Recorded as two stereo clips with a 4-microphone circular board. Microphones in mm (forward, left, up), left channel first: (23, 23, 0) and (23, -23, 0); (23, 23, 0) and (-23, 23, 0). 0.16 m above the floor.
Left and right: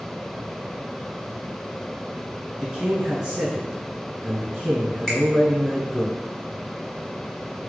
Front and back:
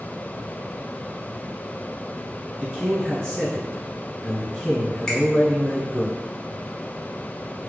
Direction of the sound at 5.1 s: 50° left.